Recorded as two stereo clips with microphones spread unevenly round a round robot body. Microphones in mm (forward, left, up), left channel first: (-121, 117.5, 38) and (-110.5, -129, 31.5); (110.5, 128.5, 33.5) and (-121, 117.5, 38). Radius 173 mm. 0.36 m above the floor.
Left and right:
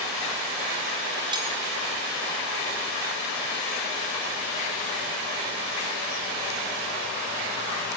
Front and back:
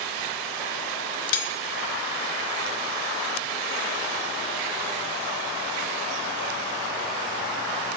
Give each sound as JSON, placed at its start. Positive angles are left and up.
{"t": 1.3, "sound": "cutlery clinking", "azimuth_deg": -10, "distance_m": 3.0}